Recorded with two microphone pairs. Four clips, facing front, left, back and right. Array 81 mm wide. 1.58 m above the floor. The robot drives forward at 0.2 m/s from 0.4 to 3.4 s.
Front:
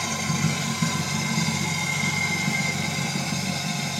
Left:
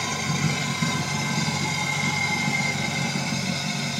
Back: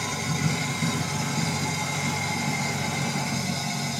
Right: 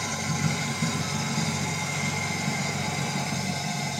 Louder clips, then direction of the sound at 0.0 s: Left 2 dB, front 2 dB; 60° left.